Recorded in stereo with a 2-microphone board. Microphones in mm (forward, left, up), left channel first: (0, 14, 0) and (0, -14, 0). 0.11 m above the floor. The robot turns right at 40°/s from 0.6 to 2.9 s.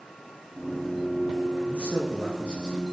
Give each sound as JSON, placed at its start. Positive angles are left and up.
{"t": 1.7, "sound": "a man speaking", "azimuth_deg": -80, "distance_m": 6.5}